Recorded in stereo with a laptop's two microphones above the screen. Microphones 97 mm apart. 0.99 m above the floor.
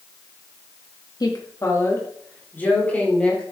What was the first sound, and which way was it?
A woman speaking, 45° left (ahead or behind).